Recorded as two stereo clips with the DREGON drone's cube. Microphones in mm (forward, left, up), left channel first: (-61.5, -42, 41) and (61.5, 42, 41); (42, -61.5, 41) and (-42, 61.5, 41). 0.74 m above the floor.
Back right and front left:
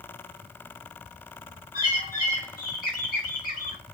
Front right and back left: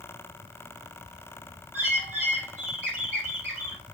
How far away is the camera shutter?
No camera shutter in this recording.